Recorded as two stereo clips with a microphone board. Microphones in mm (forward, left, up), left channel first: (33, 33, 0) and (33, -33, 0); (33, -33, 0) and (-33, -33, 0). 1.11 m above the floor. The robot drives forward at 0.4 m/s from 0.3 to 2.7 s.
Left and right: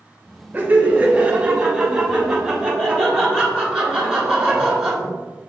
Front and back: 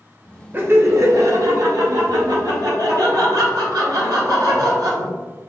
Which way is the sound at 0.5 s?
135° right.